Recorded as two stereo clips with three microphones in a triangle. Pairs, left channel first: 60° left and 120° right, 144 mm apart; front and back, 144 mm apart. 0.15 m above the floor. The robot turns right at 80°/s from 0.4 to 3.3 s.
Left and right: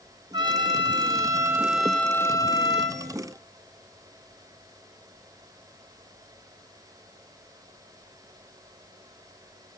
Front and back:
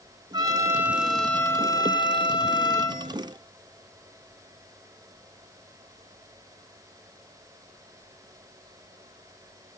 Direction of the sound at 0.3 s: 145° right.